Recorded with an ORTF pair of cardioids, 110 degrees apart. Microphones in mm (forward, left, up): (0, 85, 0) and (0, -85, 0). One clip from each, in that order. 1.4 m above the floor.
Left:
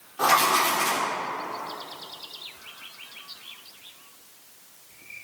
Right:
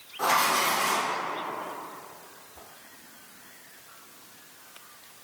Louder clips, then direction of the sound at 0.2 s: Left 3 dB; 30° left.